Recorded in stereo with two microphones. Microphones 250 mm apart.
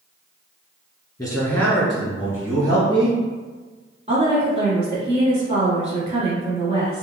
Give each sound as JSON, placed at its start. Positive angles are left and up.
{"t": 1.2, "sound": "a man speaking", "side_deg": 15, "distance_m": 1.2}
{"t": 4.1, "sound": "a woman speaking", "side_deg": -25, "distance_m": 1.3}